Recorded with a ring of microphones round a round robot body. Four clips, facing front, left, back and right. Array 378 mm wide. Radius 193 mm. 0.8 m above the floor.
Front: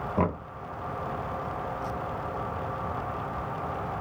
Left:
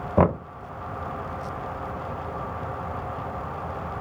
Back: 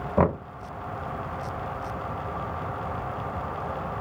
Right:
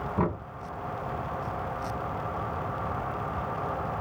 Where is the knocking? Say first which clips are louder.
Left 10 dB, back 6 dB; 110° left, 0.6 m.